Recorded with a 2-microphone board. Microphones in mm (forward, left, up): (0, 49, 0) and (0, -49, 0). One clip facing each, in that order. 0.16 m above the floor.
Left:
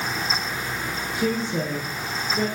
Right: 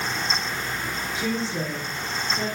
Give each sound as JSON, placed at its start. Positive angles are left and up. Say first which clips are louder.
{"t": 1.1, "sound": "a woman speaking", "louder": "left 4 dB", "side_deg": 55, "distance_m": 3.0}